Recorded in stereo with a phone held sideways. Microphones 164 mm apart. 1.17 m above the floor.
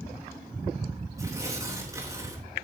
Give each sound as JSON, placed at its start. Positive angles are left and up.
{"t": 1.2, "sound": "tearing paper", "side_deg": -20, "distance_m": 3.5}